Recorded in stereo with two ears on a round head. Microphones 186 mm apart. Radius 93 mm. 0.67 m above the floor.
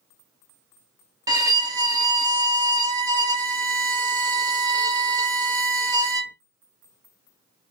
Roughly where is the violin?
Centre.